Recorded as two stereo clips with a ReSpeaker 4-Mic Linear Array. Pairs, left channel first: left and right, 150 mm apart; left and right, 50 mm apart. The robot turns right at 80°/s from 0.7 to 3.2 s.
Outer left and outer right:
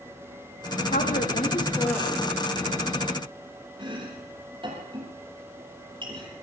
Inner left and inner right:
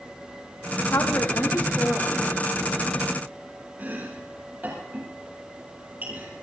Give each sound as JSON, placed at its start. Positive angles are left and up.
{"t": 0.9, "sound": "a woman speaking", "azimuth_deg": 90, "distance_m": 4.5}
{"t": 3.8, "sound": "chopping", "side_deg": -35, "distance_m": 7.5}